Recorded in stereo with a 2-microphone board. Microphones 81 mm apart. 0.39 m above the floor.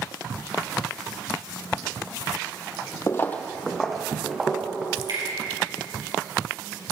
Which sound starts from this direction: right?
Dripping, at 5.0 s.